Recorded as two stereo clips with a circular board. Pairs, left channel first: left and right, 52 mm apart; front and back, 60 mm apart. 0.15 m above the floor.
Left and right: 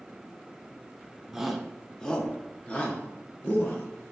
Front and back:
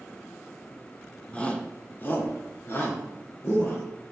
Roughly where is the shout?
Ahead.